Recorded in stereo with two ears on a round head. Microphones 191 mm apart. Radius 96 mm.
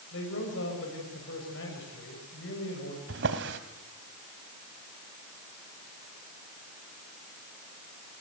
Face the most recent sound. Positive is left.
turn(degrees=-55)  # may be behind; listen again after turning